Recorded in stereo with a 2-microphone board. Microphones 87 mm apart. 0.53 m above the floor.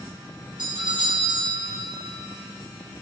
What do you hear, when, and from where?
0.6 s a doorbell: 75° right (ahead or behind), 4 m